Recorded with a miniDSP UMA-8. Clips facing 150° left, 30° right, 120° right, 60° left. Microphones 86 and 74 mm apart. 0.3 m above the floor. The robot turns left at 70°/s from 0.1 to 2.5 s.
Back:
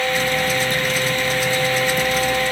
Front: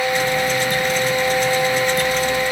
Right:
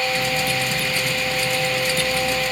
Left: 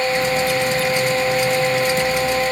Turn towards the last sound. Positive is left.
No sound to turn to.